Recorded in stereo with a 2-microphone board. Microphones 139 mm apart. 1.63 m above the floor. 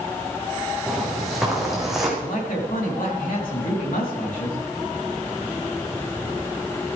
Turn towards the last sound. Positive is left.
turn(degrees=80)